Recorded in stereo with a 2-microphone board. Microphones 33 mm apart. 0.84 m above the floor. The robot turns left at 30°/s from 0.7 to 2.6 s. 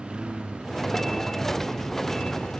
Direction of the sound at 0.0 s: 25° right (ahead or behind).